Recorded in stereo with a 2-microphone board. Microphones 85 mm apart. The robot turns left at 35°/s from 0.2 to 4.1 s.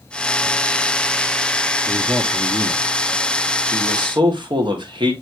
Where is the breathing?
No breathing in this recording.